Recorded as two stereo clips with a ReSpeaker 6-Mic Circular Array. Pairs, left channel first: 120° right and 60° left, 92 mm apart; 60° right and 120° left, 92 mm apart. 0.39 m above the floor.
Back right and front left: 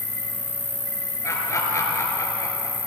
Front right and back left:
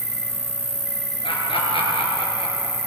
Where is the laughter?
65° right, 5.5 m.